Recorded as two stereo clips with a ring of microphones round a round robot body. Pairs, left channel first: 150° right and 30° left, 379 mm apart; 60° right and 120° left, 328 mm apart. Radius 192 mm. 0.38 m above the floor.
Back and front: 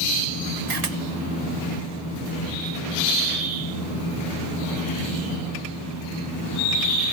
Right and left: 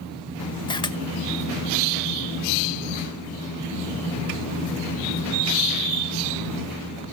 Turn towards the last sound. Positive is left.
turn(degrees=15)